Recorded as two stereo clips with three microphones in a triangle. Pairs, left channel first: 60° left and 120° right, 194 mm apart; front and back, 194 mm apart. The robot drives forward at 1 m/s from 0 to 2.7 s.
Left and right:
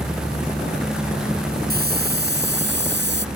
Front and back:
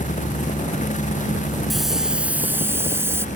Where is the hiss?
90° right; by 3.2 s 105° right.